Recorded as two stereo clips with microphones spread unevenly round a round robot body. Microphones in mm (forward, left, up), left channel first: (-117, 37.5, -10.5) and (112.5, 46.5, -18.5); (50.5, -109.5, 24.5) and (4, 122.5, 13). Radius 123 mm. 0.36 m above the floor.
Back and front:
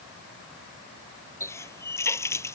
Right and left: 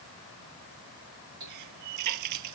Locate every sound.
1.4 s a running tap: 105° left